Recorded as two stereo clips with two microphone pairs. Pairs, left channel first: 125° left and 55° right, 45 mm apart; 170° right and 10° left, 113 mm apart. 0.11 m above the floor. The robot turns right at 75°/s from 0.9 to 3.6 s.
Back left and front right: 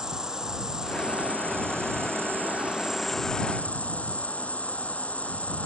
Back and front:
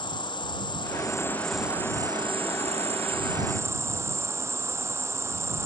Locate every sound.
0.0 s an insect: 130° right; by 5.7 s 75° left